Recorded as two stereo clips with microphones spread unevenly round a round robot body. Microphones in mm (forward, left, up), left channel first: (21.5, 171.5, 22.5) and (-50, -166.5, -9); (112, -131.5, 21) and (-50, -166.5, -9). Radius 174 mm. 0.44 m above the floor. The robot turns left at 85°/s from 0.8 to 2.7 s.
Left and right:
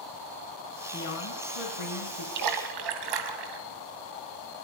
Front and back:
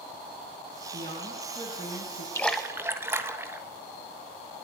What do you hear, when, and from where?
0.9 s a woman speaking: 145° left, 3.5 m; by 2.2 s 35° left, 3.5 m
2.4 s a splash: 65° right, 2 m; by 3.6 s 95° right, 2 m